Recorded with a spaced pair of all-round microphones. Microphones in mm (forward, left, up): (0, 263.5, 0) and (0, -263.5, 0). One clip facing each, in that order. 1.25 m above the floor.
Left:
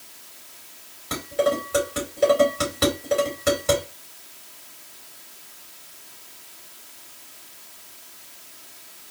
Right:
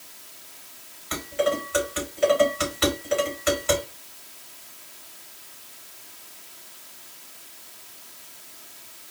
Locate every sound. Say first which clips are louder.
1.1 s dishes clattering: left 2 dB; 60° left (ahead or behind), 3 m